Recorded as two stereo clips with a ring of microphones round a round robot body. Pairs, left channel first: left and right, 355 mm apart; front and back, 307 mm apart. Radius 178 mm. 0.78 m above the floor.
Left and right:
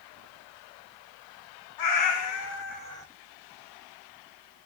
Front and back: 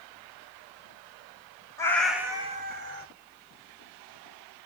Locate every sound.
1.8 s a cat meowing: 80° left, 0.7 m; by 3.1 s 170° left, 0.6 m